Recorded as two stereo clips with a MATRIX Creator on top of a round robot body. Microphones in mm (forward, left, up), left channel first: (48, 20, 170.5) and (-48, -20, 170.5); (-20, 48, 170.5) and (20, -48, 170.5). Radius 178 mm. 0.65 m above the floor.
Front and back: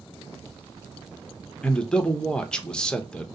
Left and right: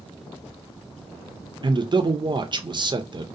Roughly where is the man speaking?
Ahead right.